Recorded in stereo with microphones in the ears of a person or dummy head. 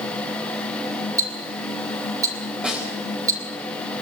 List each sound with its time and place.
1.2 s ticking: 20° right (ahead or behind), 1.5 m
2.6 s a snare drum: 5° right (ahead or behind), 4 m